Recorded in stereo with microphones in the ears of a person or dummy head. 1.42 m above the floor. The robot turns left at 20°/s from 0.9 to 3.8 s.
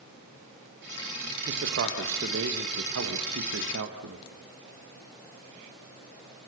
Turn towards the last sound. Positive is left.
turn(degrees=-100)